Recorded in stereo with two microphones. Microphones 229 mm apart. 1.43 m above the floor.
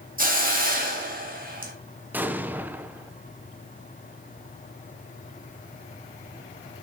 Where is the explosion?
10° right (ahead or behind), 0.8 m.